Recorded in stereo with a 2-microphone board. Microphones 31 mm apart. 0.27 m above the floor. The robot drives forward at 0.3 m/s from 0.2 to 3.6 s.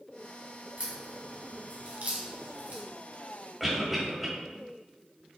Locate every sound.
0.8 s a crack: 55° right (ahead or behind), 1.9 m
3.6 s a cough: centre (ahead or behind), 0.9 m